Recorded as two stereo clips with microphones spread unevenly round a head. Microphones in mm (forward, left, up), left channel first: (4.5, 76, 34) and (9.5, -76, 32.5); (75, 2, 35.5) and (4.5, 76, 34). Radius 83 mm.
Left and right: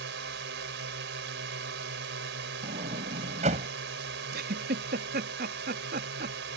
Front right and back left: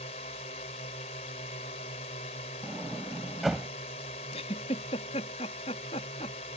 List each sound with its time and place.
0.0 s a drone: 85° right
2.6 s a sliding door: 135° right
4.3 s a giggle: 75° right